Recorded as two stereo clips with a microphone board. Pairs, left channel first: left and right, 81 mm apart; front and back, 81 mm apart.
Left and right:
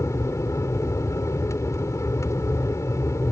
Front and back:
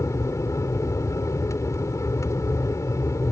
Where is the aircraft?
45° left.